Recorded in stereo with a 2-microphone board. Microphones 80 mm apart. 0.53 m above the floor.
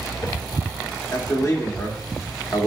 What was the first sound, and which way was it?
A man speaking, 40° left (ahead or behind).